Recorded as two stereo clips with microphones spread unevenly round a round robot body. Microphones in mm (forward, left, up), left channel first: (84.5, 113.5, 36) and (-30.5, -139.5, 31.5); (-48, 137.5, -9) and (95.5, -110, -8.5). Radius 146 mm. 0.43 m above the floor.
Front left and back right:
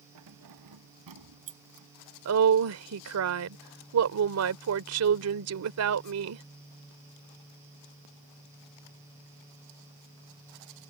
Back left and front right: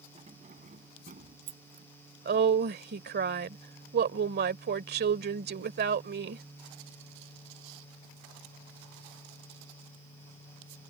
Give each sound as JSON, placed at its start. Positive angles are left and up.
{"t": 0.1, "sound": "keys jangling", "azimuth_deg": -130}
{"t": 2.2, "sound": "a woman speaking", "azimuth_deg": -110}